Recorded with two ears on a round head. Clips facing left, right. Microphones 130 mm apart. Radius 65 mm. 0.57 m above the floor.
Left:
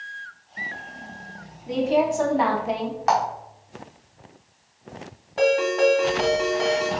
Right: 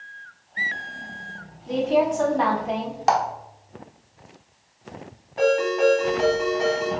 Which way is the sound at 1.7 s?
5° left (ahead or behind).